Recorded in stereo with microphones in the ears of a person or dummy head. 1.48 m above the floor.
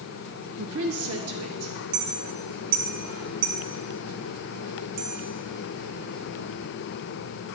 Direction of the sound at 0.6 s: 60° right (ahead or behind).